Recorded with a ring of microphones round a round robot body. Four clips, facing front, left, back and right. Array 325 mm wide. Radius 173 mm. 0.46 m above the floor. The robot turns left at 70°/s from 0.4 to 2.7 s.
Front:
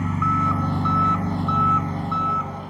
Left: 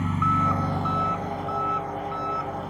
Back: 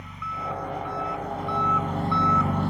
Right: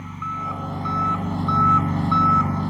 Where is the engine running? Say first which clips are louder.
Left 6 dB, front 11 dB; 25° left; by 2.7 s 135° right.